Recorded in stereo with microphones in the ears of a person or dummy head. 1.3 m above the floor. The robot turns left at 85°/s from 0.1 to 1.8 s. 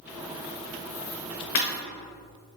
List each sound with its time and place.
1.6 s breaking glass: 35° left (ahead or behind), 1.0 m; by 1.7 s 45° left (ahead or behind), 1.0 m